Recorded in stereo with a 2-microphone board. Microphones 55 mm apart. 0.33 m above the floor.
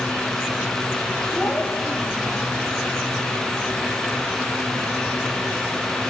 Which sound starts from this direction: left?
A child speaking, at 1.3 s.